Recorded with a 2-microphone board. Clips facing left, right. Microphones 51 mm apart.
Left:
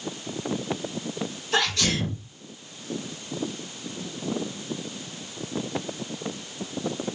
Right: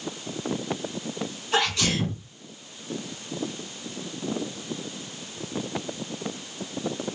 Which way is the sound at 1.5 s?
10° right (ahead or behind).